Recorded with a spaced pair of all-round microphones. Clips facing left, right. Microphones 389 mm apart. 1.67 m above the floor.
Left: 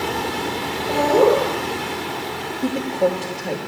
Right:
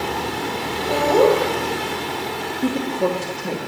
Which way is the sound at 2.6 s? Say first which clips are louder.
Even; 15° right (ahead or behind).